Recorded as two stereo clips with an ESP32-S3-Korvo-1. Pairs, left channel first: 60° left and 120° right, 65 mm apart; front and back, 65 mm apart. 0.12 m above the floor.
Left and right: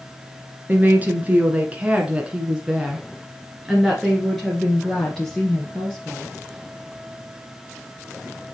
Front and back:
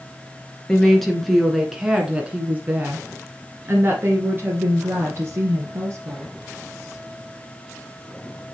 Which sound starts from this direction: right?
A woman speaking, at 0.7 s.